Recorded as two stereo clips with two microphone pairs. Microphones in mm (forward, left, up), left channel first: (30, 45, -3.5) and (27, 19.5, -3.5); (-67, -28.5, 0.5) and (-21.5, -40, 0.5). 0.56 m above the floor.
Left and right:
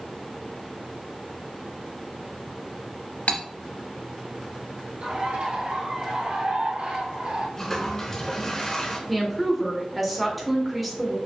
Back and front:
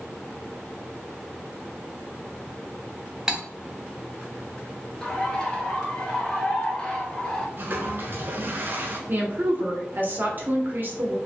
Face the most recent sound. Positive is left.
turn(degrees=-5)